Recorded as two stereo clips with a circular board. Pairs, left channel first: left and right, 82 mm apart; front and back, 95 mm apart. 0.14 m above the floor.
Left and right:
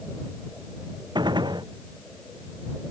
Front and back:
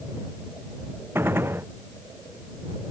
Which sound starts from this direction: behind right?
A gunshot, at 1.1 s.